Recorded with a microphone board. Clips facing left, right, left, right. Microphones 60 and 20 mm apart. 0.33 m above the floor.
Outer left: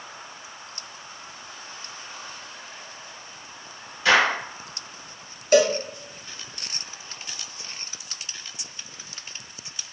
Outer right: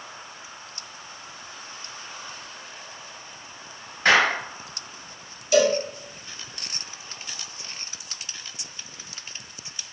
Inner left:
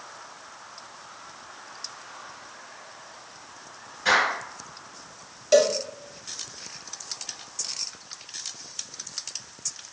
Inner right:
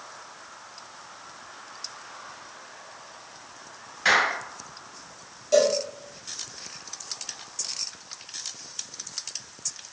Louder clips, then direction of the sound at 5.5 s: Outer left 1 dB, inner left 1 dB; 50° left (ahead or behind).